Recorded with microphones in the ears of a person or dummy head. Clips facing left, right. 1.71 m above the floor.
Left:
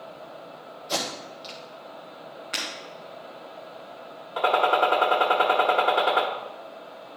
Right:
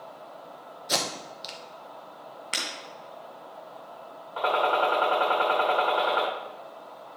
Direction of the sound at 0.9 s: 20° right (ahead or behind).